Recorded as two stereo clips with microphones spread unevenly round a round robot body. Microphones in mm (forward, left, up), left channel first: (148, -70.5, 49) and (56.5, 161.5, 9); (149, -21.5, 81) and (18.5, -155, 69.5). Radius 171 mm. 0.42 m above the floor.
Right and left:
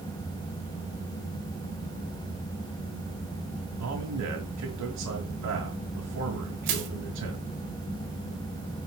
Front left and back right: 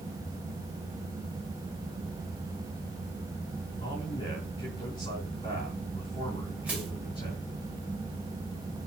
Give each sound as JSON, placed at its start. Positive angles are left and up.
{"t": 3.8, "sound": "a man speaking", "azimuth_deg": 120, "distance_m": 5.5}
{"t": 6.7, "sound": "crushing", "azimuth_deg": 145, "distance_m": 2.0}